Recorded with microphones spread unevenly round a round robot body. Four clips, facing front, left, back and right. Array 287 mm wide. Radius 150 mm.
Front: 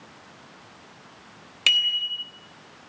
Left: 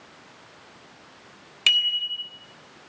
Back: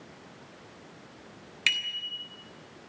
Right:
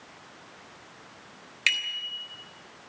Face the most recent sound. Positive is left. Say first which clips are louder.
# left 4 dB, front 6 dB
turn(degrees=20)